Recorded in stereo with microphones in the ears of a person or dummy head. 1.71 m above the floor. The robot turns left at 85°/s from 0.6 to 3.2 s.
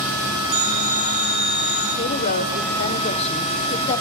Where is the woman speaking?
145° left, 0.9 m; by 4.0 s 45° left, 0.9 m.